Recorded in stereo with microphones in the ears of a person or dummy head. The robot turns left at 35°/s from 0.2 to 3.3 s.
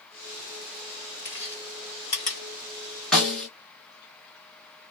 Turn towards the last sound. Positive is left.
turn(degrees=5)  # may be behind; listen again after turning